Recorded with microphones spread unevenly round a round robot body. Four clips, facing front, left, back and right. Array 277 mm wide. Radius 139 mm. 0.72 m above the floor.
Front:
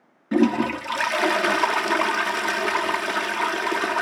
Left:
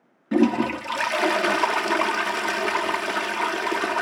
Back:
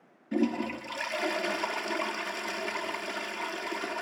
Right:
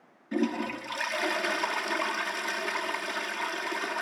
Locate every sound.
0.3 s a toilet flushing: 40° left, 0.8 m